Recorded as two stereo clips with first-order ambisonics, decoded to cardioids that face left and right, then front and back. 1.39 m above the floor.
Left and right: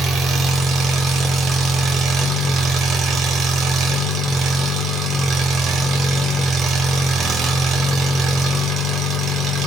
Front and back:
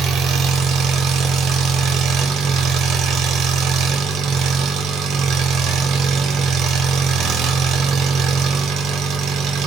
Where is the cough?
No cough in this recording.